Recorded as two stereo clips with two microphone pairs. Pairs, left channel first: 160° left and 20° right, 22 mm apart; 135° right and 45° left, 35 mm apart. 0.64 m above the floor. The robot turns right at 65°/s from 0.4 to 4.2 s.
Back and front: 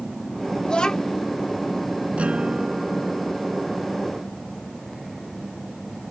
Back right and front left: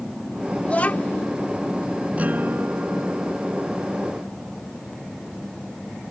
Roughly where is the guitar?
Ahead.